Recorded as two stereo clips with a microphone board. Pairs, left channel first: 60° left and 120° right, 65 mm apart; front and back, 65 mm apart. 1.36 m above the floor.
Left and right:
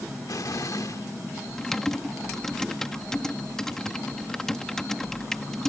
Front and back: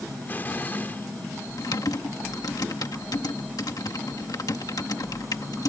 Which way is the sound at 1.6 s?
20° right.